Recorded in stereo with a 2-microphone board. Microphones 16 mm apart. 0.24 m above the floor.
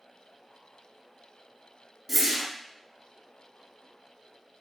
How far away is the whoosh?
About 0.6 m.